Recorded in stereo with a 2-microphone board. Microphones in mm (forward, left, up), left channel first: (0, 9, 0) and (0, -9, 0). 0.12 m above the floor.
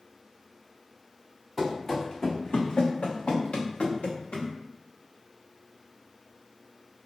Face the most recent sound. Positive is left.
turn(degrees=70)  # may be behind; listen again after turning